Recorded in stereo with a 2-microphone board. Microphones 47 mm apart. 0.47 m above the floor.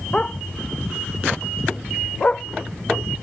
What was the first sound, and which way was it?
A dog barking, 25° left (ahead or behind).